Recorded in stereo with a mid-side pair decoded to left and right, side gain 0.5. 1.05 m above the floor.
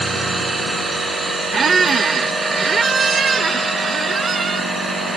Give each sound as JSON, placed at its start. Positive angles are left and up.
{"t": 0.0, "sound": "a machine running", "azimuth_deg": -30}
{"t": 1.5, "sound": "a squeak", "azimuth_deg": -40}